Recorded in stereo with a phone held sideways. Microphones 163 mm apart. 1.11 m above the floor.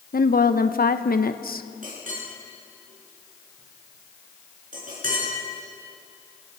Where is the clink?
55° right (ahead or behind), 8 m.